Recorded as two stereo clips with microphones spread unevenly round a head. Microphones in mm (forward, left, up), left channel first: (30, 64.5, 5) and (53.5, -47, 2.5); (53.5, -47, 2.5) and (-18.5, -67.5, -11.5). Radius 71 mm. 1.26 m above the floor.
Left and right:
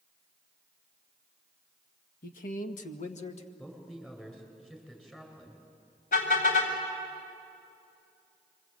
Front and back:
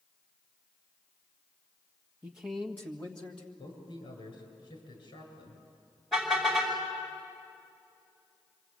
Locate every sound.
2.2 s a man speaking: 115° left, 1.3 m; by 3.5 s 75° left, 1.9 m
3.6 s a man speaking: 20° left, 8 m
6.1 s a car horn: 105° left, 4.5 m